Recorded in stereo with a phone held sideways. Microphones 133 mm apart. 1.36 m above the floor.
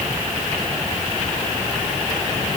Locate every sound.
Only background noise.